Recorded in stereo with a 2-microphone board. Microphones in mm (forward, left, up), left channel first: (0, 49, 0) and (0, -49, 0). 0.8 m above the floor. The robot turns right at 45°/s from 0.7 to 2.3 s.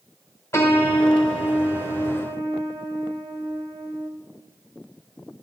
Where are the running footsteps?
No running footsteps in this recording.